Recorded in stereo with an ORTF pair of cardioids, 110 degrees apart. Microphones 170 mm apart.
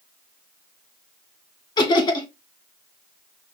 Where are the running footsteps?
No running footsteps in this recording.